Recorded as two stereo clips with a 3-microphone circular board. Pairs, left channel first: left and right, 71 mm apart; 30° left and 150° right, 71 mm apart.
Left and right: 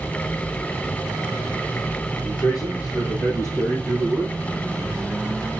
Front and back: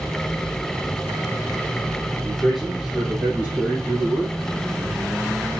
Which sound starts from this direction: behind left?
A man speaking, at 2.2 s.